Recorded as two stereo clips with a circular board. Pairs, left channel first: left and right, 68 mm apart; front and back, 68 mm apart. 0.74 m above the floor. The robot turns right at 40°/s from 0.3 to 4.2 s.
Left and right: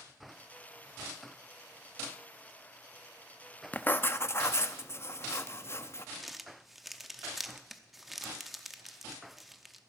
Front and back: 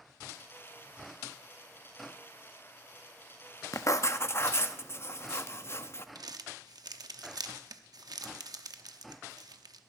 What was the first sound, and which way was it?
Writing, 30° left.